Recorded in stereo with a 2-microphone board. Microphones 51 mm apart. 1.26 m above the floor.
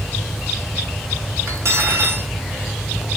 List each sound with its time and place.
1.5 s cutlery clinking: 60° right (ahead or behind), 1.3 m